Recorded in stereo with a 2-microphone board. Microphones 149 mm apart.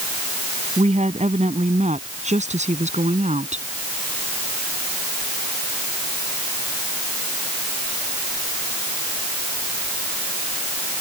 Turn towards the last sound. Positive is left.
turn(degrees=-50)  # may be behind; listen again after turning